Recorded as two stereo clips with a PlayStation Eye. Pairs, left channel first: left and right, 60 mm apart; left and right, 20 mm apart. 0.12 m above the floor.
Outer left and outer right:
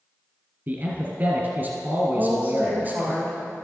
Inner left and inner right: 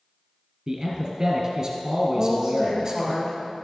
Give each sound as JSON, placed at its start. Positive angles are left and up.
{"t": 0.7, "sound": "a man speaking", "side_deg": -35, "distance_m": 1.5}
{"t": 2.1, "sound": "a woman speaking", "side_deg": -25, "distance_m": 3.0}